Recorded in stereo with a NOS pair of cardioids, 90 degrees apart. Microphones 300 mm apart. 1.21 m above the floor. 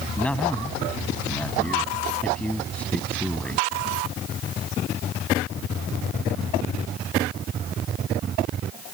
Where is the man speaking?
5° left.